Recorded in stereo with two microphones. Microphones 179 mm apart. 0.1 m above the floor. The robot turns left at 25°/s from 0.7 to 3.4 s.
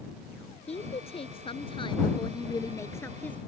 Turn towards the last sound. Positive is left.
turn(degrees=15)